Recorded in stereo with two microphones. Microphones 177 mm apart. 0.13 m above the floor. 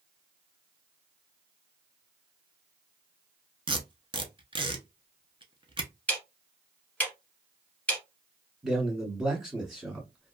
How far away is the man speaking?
About 1.2 m.